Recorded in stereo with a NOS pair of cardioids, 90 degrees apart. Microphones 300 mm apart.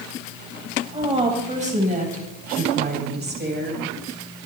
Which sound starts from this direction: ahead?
A woman speaking, at 0.9 s.